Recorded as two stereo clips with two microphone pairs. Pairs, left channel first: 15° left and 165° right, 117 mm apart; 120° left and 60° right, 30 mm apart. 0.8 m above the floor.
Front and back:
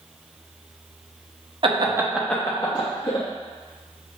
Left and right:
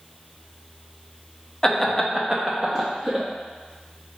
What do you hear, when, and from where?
1.6 s laughter: 170° right, 0.7 m; by 3.2 s 10° right, 1.2 m